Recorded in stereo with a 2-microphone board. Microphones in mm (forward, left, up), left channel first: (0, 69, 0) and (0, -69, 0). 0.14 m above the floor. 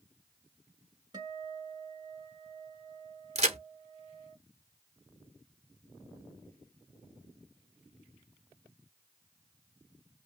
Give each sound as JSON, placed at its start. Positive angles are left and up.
{"t": 1.1, "sound": "a guitar", "side_deg": -30, "distance_m": 1.8}
{"t": 3.4, "sound": "a crack", "side_deg": -50, "distance_m": 0.9}